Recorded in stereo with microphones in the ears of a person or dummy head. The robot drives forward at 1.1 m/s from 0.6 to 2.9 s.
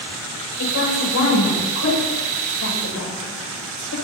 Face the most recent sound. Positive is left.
turn(degrees=80)